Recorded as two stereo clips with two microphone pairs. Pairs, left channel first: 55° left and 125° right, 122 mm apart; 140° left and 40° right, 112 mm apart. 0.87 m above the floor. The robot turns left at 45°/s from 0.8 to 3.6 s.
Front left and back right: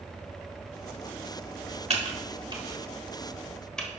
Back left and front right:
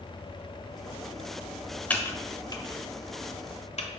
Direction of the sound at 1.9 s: 145° right.